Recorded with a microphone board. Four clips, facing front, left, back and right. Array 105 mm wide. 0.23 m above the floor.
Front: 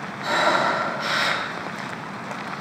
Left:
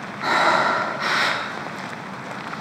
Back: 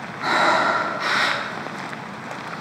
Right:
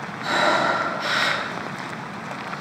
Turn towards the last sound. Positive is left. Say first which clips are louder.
# left 2 dB, back 2 dB
turn(degrees=130)